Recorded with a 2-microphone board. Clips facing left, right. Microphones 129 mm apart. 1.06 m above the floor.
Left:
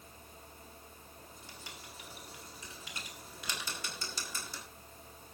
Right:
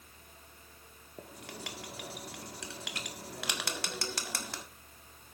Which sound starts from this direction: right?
Writing, at 1.2 s.